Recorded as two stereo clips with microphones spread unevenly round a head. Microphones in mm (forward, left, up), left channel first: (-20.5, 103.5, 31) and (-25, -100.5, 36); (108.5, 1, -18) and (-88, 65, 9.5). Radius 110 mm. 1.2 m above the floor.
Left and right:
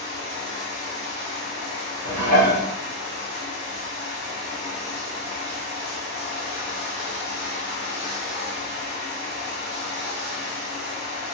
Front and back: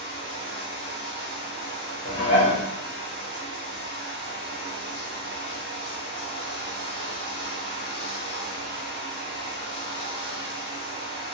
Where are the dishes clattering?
85° right, 0.9 m.